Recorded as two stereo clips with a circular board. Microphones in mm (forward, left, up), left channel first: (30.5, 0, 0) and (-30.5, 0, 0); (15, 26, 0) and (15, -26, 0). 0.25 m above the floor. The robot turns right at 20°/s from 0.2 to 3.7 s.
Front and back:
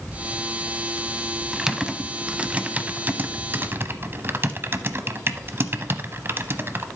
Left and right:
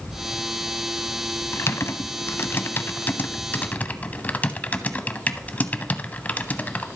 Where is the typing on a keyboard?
100° left, 0.6 m; by 6.9 s 140° left, 0.6 m.